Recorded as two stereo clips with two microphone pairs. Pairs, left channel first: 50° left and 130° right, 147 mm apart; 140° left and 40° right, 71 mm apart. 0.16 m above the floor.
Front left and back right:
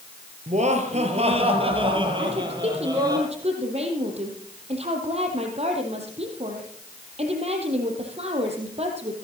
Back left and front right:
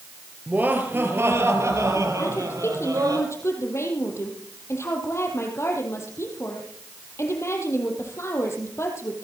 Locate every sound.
0.5 s laughter: 105° right, 3.5 m; by 3.2 s 65° right, 5 m
2.2 s a woman speaking: 170° right, 4.5 m